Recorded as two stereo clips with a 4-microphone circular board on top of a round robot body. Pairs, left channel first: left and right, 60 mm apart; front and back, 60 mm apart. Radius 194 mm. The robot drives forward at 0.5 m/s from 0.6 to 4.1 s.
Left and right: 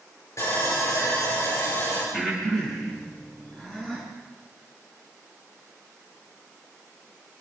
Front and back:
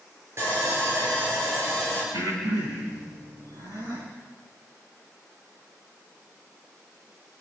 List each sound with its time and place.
0.4 s sawing: 135° left, 7.5 m; by 2.0 s 140° left, 8 m
2.1 s breathing: straight behind, 9.5 m